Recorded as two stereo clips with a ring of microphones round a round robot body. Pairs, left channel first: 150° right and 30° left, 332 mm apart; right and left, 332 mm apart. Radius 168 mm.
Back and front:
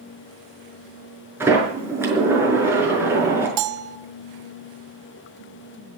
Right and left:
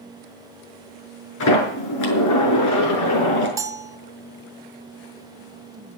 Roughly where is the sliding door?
Ahead right.